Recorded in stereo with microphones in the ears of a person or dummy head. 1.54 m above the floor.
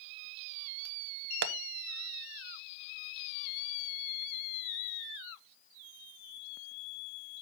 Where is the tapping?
65° right (ahead or behind), 0.7 m.